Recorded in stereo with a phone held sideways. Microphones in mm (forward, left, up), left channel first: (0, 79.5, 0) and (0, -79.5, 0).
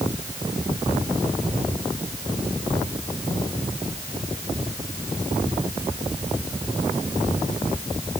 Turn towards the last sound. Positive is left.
No sound to turn to.